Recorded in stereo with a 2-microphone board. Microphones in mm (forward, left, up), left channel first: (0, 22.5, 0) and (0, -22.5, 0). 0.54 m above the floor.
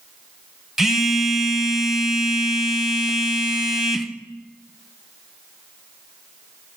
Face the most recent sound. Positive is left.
turn(degrees=-10)  # may be behind; listen again after turning